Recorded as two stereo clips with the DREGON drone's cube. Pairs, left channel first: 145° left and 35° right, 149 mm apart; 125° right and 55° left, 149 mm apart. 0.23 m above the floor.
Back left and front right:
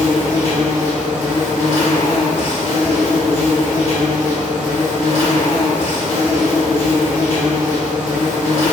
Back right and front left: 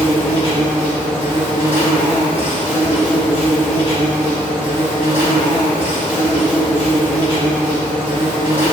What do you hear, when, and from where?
0.0 s an insect: 110° left, 1.7 m